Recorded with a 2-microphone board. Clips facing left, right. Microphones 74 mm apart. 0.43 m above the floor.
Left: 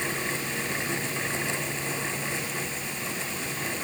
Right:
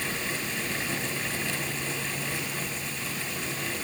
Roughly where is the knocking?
No knocking in this recording.